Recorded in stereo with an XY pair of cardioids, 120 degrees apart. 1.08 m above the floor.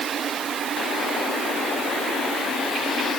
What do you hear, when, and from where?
Only background noise.